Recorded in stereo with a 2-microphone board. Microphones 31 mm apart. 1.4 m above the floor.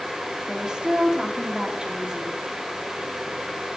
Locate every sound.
0.5 s a woman speaking: 25° right (ahead or behind), 2.5 m